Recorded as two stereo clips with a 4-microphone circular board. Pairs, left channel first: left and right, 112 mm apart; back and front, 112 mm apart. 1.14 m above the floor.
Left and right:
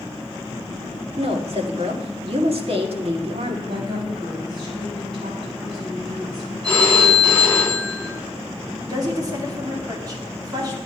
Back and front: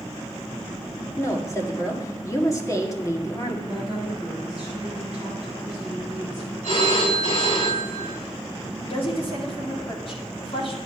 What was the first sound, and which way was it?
A woman speaking, 120° right.